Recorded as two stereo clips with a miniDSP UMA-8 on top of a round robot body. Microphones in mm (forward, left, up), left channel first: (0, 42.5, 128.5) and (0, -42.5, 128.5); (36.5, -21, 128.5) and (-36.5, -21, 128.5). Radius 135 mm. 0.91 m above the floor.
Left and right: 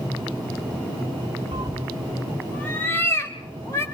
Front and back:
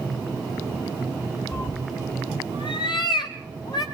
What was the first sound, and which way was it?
A cat meowing, 55° right.